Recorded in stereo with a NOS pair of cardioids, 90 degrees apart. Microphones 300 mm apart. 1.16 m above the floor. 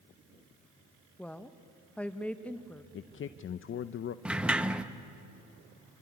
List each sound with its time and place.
1.2 s a woman speaking: 5° left, 1.1 m
2.9 s a man speaking: 45° left, 0.6 m
4.2 s a sliding door: 5° right, 0.9 m